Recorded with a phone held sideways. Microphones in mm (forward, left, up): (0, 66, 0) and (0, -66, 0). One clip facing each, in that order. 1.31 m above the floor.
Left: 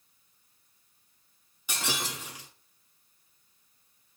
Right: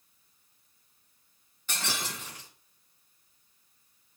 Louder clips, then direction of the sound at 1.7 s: Left 2 dB; 10° left (ahead or behind).